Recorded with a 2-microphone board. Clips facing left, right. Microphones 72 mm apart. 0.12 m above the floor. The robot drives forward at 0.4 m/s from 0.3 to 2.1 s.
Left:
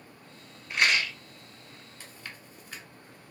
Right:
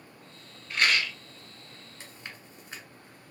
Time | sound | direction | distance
0.7 | a rattle | 20° left (ahead or behind) | 1.0 m
2.0 | chewing | 25° right (ahead or behind) | 1.2 m